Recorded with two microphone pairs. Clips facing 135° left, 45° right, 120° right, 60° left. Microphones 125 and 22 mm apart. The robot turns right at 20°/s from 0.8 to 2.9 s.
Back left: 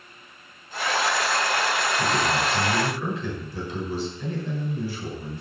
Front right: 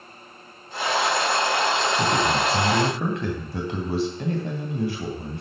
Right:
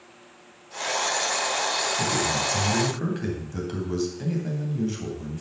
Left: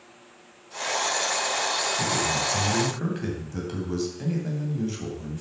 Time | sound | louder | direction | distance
2.0 | a man speaking | front right 1 dB, even | 50° right | 3 m